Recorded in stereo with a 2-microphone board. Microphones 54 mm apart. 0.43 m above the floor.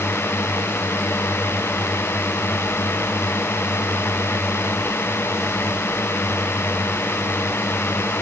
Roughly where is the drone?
Left.